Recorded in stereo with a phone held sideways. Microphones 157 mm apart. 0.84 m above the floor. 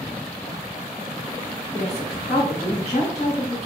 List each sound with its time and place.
1.7 s a woman speaking: 40° left (ahead or behind), 1.8 m